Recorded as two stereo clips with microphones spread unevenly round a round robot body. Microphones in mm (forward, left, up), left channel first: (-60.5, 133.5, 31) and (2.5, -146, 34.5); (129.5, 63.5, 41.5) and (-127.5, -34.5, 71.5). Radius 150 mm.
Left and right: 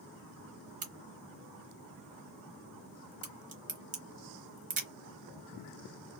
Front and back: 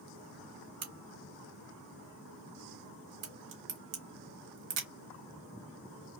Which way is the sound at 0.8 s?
140° right.